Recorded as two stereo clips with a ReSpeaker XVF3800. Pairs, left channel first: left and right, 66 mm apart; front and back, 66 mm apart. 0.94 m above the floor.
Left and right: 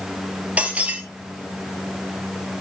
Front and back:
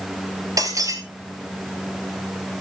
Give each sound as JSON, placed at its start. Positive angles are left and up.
{"t": 0.6, "sound": "breaking glass", "azimuth_deg": -160, "distance_m": 2.0}